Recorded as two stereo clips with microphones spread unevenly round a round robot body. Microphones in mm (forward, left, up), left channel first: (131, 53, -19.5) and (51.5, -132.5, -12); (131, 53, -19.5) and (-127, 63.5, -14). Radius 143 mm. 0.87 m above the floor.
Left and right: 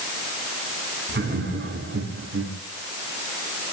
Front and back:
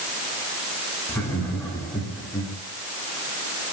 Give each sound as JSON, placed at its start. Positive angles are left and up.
{"t": 1.1, "sound": "laughter", "azimuth_deg": -85, "distance_m": 9.0}